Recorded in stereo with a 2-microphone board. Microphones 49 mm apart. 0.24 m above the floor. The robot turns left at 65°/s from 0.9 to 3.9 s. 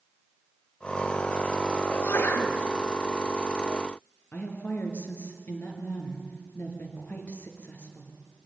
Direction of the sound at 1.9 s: 130° left.